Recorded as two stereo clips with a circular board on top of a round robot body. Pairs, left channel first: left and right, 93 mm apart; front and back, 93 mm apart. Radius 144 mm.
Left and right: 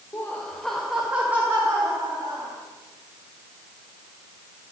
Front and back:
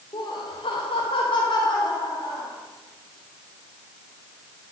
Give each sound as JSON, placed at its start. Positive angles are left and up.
{"t": 0.1, "sound": "laughter", "azimuth_deg": 30, "distance_m": 1.8}